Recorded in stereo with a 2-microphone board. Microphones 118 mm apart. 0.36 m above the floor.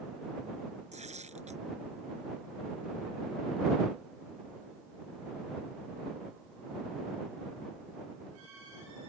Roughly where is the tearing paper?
Right.